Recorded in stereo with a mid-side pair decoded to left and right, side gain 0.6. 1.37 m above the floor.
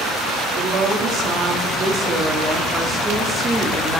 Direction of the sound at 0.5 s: 55° right.